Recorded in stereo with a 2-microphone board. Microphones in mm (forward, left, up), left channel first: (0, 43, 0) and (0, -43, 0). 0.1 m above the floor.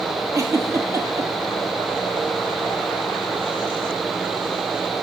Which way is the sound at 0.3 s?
40° right (ahead or behind).